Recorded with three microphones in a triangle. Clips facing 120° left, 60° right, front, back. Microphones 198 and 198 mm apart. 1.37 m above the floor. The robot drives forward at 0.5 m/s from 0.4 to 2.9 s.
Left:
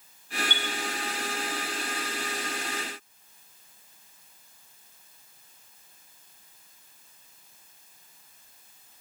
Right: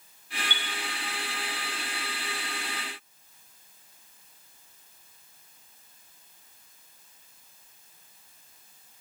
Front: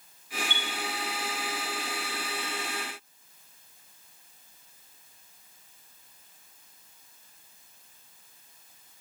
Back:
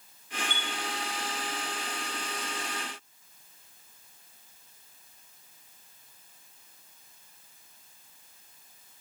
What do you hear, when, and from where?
0.5 s a chime: 135° right, 2 m